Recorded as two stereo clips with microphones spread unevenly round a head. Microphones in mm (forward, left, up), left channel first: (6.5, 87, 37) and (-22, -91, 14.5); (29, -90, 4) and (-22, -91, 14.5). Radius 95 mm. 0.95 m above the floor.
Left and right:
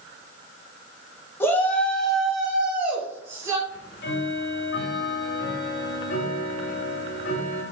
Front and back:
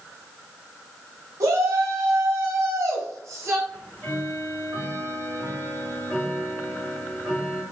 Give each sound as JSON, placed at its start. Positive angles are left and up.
{"t": 1.4, "sound": "a shout", "azimuth_deg": 160, "distance_m": 2.0}
{"t": 3.7, "sound": "ticking", "azimuth_deg": 105, "distance_m": 2.5}